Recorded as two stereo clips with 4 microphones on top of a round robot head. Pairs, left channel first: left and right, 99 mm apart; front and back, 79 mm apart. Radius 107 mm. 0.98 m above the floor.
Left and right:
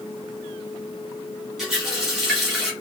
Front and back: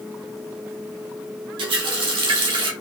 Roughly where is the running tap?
Behind.